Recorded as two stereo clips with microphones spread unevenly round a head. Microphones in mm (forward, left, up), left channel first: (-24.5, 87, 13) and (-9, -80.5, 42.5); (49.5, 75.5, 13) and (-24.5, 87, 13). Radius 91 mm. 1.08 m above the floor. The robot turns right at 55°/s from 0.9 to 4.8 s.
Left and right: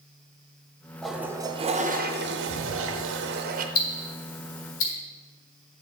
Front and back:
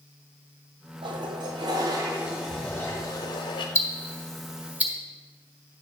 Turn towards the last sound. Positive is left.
turn(degrees=100)